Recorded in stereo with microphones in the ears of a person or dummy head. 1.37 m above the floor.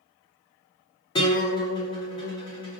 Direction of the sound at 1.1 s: 25° left (ahead or behind).